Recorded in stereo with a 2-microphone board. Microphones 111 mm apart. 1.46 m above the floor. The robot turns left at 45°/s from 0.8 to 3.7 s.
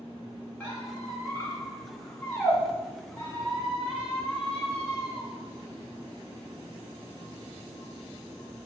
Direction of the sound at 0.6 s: 10° left (ahead or behind).